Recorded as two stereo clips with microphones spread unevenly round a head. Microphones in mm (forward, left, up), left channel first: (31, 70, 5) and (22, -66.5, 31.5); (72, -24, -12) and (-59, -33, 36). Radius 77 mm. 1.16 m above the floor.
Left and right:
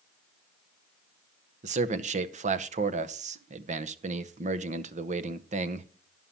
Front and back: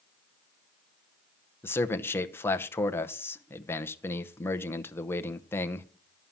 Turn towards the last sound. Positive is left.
turn(degrees=-55)